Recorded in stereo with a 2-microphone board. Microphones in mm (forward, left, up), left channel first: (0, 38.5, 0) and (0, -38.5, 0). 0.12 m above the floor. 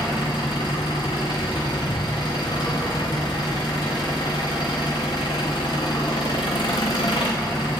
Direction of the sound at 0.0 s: 80° left.